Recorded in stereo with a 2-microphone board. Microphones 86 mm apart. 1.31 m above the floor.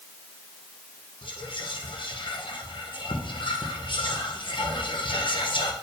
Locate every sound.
1.2 s whispering: 70° left (ahead or behind), 1.2 m